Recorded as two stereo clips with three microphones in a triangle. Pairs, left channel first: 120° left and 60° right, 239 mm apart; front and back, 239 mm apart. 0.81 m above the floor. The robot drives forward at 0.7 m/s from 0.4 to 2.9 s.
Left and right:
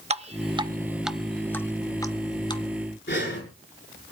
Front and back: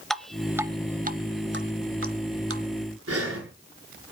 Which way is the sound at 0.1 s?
90° right.